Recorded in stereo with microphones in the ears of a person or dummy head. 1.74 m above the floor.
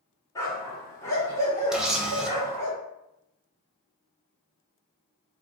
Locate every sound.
0.3 s a dog barking: 20° left (ahead or behind), 1.5 m
1.7 s a camera shutter: 5° right (ahead or behind), 0.8 m